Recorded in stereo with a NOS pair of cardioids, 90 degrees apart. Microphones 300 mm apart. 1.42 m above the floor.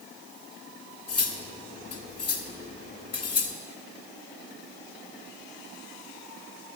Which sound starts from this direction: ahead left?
Cutlery clinking, at 1.1 s.